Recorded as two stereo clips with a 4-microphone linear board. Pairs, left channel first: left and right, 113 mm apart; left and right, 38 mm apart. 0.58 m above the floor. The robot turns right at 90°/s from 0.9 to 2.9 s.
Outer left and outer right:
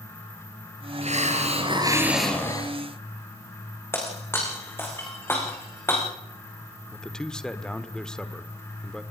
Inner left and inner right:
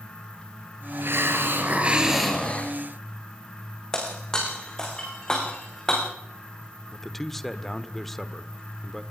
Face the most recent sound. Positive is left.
turn(degrees=5)  # may be behind; listen again after turning